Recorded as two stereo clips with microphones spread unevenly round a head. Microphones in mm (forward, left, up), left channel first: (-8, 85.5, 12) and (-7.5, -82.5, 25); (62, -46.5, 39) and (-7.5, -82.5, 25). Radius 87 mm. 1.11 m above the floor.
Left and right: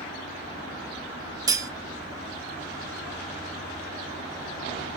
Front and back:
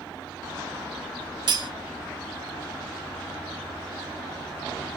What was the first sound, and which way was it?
Cutlery clinking, 145° right.